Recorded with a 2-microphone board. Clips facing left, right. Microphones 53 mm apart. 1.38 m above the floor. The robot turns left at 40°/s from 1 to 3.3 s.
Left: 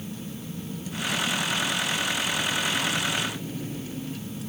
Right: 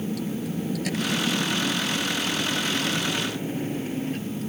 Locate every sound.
0.0 s a vehicle: 90° right; by 4.5 s 50° right (ahead or behind)